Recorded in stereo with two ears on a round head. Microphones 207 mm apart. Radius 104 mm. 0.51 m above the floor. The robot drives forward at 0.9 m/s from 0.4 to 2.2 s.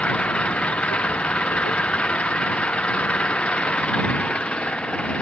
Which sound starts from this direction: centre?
An engine running, at 0.0 s.